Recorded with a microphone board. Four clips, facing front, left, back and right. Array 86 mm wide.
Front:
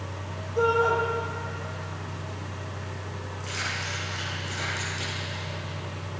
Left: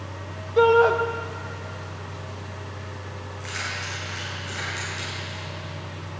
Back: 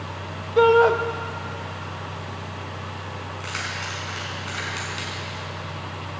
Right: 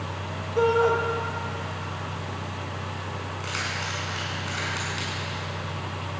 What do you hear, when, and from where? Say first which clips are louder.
0.6 s a shout: left 4 dB, back 7 dB; 155° left, 1.2 m
3.4 s keys jangling: left 1 dB, back 1 dB; 145° right, 6.5 m